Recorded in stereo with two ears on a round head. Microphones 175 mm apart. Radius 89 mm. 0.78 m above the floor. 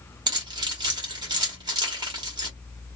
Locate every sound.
0.3 s keys jangling: 20° right (ahead or behind), 1.0 m